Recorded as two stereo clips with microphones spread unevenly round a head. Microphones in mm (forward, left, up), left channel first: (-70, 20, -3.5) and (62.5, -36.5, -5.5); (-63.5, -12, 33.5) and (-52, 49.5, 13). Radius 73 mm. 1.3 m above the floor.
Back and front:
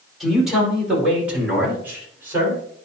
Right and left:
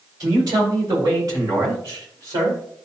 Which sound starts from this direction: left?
A man speaking, at 0.2 s.